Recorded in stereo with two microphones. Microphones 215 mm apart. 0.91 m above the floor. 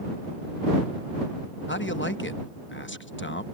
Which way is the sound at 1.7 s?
60° left (ahead or behind).